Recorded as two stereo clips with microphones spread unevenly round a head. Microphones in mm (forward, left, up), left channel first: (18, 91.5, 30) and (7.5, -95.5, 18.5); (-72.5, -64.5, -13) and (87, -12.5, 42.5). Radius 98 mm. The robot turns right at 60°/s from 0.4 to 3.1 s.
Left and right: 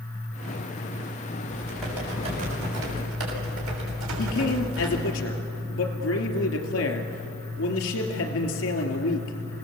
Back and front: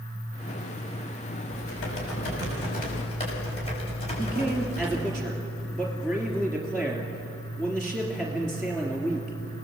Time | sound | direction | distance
1.5 | typing on a keyboard | 155° left | 6 m
4.2 | a man speaking | 115° left | 3 m